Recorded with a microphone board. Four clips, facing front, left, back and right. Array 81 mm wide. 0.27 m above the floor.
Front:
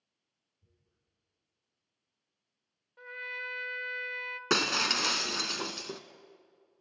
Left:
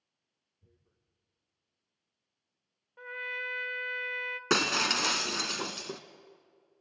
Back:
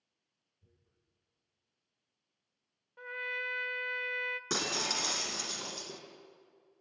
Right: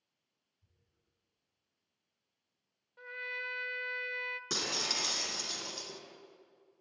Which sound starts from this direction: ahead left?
Breaking glass, at 4.5 s.